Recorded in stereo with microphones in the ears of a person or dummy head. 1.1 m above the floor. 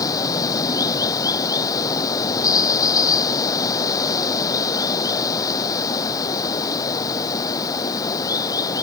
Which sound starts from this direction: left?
Running water, at 0.0 s.